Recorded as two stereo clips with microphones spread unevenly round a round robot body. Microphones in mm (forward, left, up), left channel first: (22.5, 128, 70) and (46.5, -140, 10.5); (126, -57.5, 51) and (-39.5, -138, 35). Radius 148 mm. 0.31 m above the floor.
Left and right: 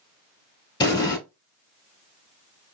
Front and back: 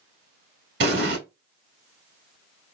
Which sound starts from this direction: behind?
An explosion, at 0.8 s.